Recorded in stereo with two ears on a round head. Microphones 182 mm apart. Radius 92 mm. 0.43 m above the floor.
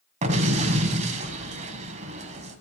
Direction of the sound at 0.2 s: 35° right (ahead or behind).